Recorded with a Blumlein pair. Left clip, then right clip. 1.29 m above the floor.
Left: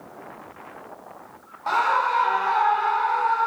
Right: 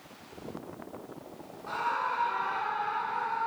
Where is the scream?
45° left, 0.6 m.